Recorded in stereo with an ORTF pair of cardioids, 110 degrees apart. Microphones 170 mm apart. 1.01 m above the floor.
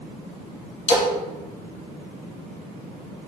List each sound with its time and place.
0.9 s a splash: 45° left, 1.1 m